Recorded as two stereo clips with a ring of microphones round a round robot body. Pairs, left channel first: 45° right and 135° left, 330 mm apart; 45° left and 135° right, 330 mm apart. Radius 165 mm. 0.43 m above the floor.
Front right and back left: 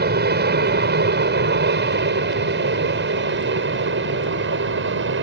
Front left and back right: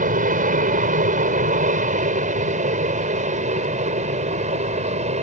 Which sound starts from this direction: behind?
An aircraft, at 0.0 s.